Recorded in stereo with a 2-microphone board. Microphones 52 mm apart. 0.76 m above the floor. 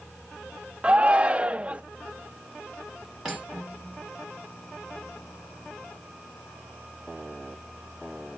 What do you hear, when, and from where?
0.8 s a shout: 25° right (ahead or behind), 0.6 m
3.2 s cutlery clinking: 5° right (ahead or behind), 1.6 m